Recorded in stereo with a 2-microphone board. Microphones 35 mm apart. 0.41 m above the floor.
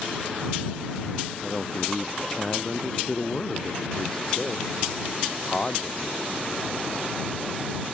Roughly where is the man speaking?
Centre.